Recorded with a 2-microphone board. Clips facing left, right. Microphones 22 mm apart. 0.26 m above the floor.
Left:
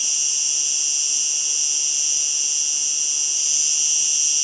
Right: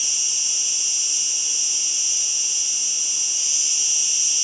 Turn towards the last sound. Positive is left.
turn(degrees=15)  # may be behind; listen again after turning